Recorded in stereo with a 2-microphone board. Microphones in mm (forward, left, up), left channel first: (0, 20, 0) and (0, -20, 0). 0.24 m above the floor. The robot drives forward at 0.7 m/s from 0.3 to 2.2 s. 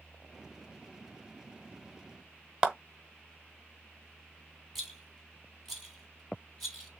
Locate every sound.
2.6 s a clap: 20° right (ahead or behind), 1.2 m
4.8 s a rattle: 5° left (ahead or behind), 2.5 m